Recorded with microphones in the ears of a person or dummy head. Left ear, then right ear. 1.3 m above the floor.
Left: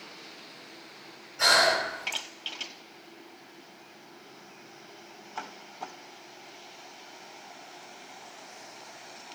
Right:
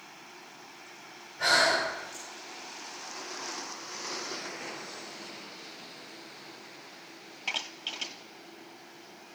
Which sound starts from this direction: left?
Breathing, at 1.4 s.